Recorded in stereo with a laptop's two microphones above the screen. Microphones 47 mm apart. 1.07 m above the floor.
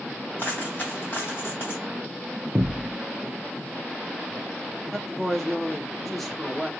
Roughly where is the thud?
Right.